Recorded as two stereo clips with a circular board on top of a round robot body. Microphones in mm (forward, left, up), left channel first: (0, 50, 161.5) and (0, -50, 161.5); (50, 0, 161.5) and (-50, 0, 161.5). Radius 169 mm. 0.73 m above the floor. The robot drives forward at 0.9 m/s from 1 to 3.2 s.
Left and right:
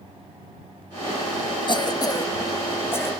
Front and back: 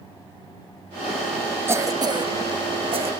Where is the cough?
120° left, 1.0 m; by 3.1 s 160° left, 1.9 m.